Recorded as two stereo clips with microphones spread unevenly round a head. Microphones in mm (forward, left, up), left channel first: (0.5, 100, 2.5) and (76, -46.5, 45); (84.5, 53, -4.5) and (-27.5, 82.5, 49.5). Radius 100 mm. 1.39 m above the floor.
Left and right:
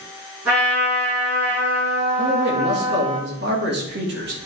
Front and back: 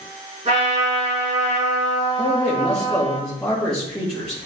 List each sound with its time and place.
0.5 s a trumpet: 145° right, 4.5 m
2.2 s a man speaking: 100° right, 2.0 m